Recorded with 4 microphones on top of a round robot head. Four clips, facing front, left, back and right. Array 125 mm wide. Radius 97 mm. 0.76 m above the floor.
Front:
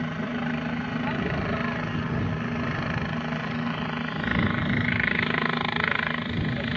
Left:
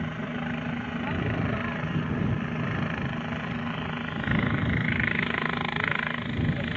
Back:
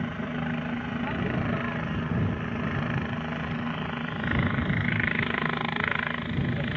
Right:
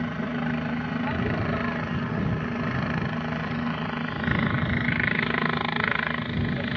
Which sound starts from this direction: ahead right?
A helicopter, at 0.0 s.